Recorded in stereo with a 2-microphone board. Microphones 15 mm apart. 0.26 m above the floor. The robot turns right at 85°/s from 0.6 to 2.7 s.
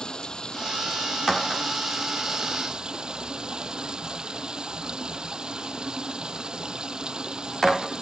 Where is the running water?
60° left; by 8.0 s 120° right.